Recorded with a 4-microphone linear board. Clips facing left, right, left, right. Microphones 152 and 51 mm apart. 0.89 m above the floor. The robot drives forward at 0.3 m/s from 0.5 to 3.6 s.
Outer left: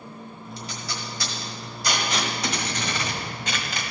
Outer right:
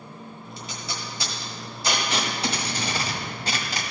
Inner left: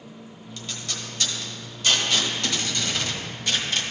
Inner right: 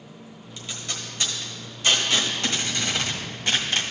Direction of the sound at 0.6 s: 20° right (ahead or behind).